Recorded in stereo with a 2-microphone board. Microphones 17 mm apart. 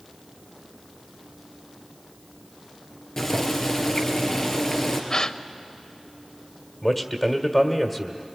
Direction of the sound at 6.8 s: 10° left (ahead or behind).